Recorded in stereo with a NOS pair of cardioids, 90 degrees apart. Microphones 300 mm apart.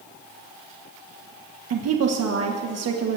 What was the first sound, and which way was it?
A woman speaking, 55° right.